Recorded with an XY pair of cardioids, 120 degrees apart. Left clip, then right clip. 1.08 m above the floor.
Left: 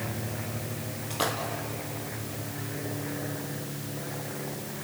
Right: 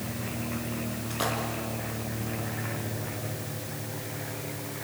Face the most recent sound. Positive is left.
turn(degrees=15)